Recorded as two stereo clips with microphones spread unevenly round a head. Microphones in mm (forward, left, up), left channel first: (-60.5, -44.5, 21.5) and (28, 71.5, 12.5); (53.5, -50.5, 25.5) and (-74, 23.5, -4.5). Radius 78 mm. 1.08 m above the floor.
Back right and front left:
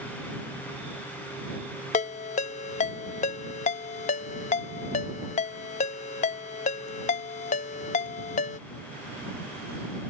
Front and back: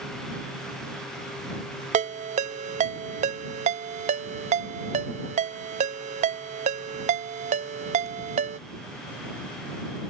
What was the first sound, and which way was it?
A ringtone, 165° right.